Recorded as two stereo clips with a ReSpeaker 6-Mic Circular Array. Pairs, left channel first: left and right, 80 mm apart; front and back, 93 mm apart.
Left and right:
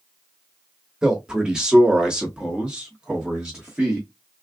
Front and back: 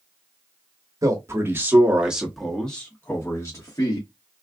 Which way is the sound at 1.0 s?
165° right.